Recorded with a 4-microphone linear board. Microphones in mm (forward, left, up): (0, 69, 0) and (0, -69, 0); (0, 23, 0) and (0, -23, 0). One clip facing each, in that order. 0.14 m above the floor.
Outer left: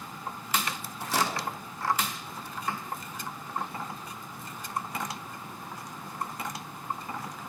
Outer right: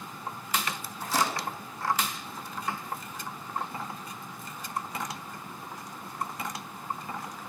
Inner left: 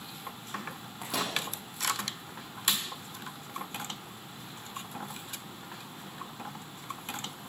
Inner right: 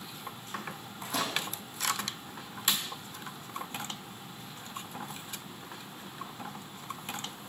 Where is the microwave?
75° left (ahead or behind), 3.5 m.